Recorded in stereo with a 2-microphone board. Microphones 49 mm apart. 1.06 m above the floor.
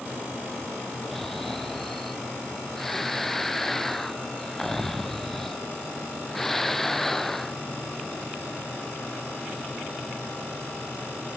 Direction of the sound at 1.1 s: 5° left (ahead or behind).